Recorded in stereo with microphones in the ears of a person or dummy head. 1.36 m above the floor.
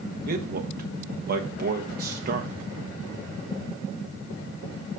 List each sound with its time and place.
0.3 s a man speaking: 55° right (ahead or behind), 1.0 m